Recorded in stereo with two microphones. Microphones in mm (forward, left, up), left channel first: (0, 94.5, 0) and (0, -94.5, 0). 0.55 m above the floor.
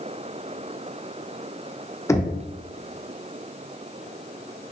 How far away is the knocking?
About 0.7 m.